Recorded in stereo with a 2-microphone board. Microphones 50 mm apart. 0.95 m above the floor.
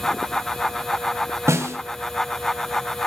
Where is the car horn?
No car horn in this recording.